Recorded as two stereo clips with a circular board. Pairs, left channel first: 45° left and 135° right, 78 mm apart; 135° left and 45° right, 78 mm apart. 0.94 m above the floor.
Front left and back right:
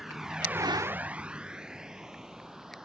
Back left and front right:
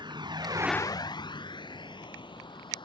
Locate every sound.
0.0 s a vehicle: 50° right; by 2.9 s 140° left